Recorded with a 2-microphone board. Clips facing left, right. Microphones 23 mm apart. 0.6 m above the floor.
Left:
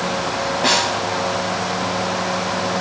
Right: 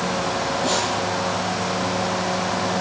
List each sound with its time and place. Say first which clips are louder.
0.6 s a snare drum: left 7 dB; 70° left (ahead or behind), 2.5 m